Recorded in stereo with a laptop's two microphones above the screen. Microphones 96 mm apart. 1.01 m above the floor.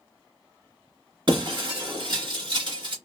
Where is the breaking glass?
55° right (ahead or behind), 1.6 m.